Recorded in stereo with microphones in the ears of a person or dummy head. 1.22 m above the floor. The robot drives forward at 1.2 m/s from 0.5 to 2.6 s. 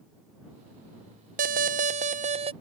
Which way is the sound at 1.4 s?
50° right (ahead or behind).